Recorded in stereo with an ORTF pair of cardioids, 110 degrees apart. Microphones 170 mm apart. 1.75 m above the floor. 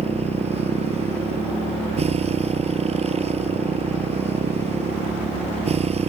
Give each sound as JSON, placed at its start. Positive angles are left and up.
{"t": 0.0, "sound": "a motorcycle", "azimuth_deg": -35}